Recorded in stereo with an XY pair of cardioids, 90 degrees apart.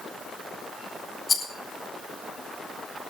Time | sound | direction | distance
1.3 | a rattle | 35° left | 6.5 m